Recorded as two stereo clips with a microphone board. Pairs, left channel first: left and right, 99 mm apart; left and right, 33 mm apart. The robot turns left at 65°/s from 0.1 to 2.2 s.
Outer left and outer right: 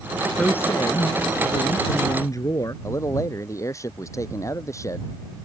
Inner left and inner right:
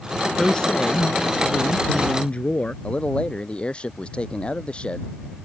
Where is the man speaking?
30° left (ahead or behind).